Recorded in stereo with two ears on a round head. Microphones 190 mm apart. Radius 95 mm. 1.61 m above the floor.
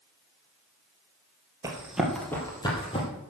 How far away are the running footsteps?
About 2.5 m.